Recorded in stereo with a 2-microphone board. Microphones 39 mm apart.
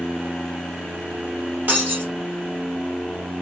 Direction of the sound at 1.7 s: 50° right (ahead or behind).